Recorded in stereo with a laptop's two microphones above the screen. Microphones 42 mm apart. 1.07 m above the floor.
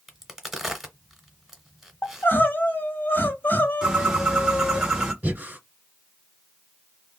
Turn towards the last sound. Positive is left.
turn(degrees=-40)  # may be behind; listen again after turning